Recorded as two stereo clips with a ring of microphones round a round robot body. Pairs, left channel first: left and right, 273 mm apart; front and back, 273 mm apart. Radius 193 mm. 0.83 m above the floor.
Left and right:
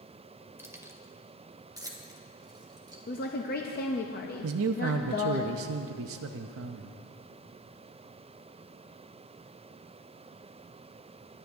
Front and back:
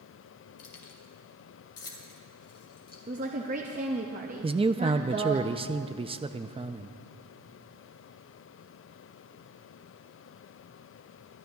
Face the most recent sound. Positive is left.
turn(degrees=-110)